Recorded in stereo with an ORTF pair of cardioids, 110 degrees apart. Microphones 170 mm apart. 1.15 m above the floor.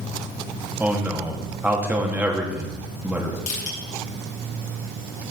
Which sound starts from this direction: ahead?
A man speaking, at 0.8 s.